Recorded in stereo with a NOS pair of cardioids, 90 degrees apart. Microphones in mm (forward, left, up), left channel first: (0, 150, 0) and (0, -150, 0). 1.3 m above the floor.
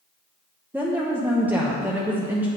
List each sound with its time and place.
0.7 s a woman speaking: 5° right, 1.0 m